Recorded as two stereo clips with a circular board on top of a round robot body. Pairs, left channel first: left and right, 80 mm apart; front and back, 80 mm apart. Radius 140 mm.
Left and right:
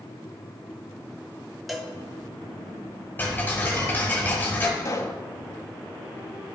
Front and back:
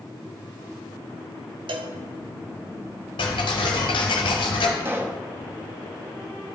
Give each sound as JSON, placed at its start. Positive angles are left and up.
{"t": 1.7, "sound": "a cowbell", "azimuth_deg": 180, "distance_m": 0.6}
{"t": 3.2, "sound": "ticking", "azimuth_deg": 20, "distance_m": 0.6}
{"t": 4.8, "sound": "a pop", "azimuth_deg": 125, "distance_m": 0.9}